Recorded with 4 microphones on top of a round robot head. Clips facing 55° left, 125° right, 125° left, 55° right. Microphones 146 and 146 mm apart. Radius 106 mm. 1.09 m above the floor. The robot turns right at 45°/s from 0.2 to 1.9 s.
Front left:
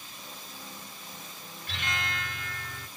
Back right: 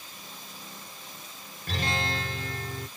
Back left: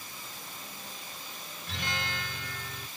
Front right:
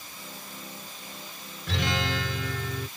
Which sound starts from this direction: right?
A guitar, at 1.7 s.